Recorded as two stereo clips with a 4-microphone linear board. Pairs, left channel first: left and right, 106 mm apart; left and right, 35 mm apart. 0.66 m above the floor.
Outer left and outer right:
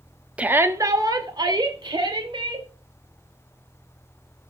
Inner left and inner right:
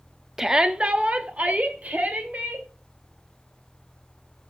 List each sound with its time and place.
0.4 s a shout: 10° right (ahead or behind), 0.7 m; by 2.7 s 50° right (ahead or behind), 3 m